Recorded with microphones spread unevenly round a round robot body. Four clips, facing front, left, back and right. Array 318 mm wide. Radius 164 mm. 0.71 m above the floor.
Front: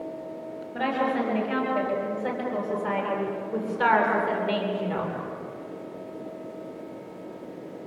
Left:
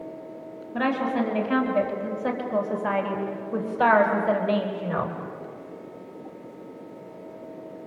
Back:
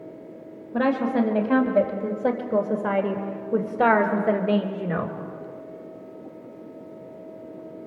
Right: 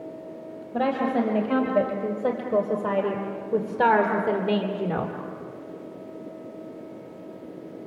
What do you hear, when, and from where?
0.7 s a woman speaking: 145° right, 4.5 m; by 5.2 s 120° right, 2.5 m